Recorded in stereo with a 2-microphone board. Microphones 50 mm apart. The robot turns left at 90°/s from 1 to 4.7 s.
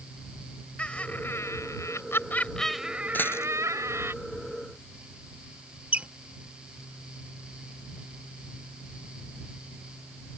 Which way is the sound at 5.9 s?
25° right (ahead or behind).